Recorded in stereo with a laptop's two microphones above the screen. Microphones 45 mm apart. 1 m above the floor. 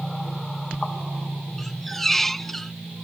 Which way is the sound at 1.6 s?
5° left (ahead or behind).